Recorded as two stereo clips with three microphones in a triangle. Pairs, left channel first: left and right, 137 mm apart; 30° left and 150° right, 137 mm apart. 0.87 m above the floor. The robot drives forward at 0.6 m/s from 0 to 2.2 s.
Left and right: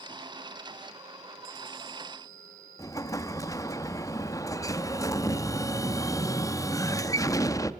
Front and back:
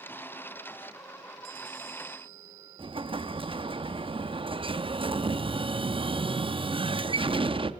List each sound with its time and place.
2.8 s an explosion: 160° left, 0.7 m